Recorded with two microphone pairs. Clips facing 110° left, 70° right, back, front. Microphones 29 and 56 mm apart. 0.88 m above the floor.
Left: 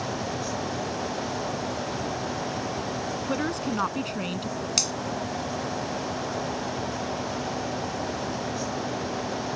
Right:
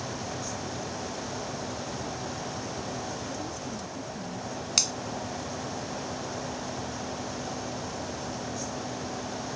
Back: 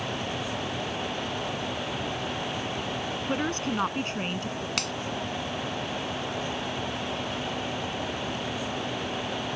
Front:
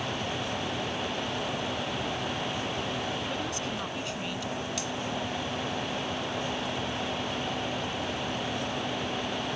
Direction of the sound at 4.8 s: 160° right.